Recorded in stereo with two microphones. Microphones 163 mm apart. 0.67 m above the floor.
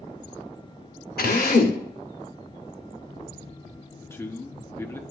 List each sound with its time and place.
1.2 s a drill: 65° left (ahead or behind), 0.8 m
4.0 s a man speaking: 15° left (ahead or behind), 0.7 m